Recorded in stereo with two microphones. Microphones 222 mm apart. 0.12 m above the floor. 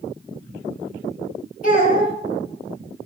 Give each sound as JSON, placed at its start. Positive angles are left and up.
{"t": 1.6, "sound": "a child speaking", "side_deg": 40, "distance_m": 1.9}